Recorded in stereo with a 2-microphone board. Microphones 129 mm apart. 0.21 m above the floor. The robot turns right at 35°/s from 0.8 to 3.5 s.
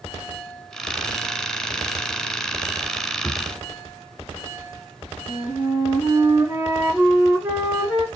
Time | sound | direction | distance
3.2 | a drawer | 20° left (ahead or behind) | 0.6 m
5.3 | a flute | 15° right (ahead or behind) | 3.5 m